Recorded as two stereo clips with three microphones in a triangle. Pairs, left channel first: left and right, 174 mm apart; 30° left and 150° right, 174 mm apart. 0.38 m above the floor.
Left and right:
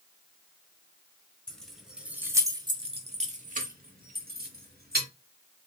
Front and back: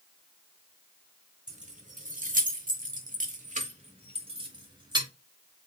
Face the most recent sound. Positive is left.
turn(degrees=-85)